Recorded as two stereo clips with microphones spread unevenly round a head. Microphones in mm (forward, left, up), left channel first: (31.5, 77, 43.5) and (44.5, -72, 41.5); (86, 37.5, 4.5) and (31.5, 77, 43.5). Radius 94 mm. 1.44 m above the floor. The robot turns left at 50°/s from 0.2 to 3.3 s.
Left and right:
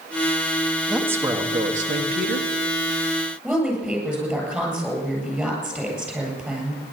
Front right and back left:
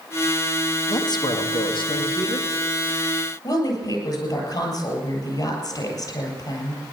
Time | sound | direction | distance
0.9 | a man speaking | straight ahead | 1.9 m
3.4 | a woman speaking | 5° right | 8.5 m